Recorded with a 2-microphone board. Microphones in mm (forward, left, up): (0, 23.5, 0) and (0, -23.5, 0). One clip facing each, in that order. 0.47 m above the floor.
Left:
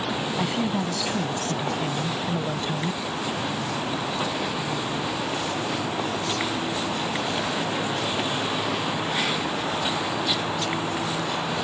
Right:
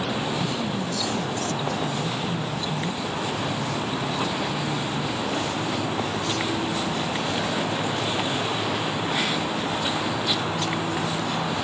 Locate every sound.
0.4 s a woman speaking: 45° left (ahead or behind); by 3.0 s 40° left (ahead or behind)